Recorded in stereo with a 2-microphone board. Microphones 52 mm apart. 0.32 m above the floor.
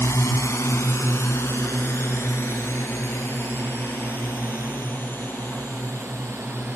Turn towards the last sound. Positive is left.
turn(degrees=35)  # may be behind; listen again after turning